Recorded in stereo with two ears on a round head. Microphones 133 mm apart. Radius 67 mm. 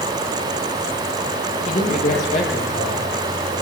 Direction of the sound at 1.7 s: 50° left (ahead or behind).